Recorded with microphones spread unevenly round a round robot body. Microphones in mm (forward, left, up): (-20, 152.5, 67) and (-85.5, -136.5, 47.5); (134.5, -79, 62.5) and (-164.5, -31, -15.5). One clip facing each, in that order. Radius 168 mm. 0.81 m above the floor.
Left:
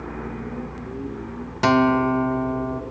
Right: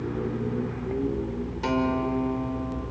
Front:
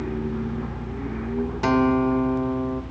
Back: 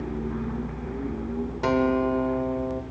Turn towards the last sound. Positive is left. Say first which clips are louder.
# left 8 dB, front 3 dB
turn(degrees=50)